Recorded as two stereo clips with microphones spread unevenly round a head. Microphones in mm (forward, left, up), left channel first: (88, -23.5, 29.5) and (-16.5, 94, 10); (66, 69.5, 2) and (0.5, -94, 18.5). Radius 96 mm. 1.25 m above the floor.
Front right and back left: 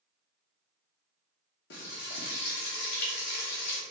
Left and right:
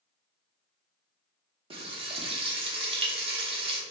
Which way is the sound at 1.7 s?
55° right.